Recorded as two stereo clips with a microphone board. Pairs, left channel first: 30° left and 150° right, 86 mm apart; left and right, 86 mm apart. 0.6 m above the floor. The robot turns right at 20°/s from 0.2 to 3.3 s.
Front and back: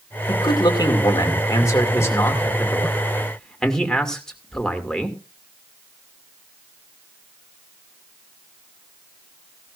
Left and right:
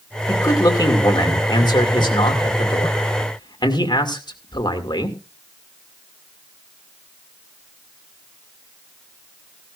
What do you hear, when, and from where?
0.3 s a man speaking: 50° left, 2 m; by 5.2 s 110° left, 2 m